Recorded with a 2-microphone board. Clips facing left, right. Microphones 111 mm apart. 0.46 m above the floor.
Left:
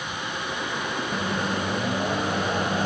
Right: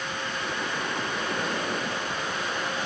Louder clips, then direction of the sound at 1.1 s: Left 3 dB; 45° left (ahead or behind).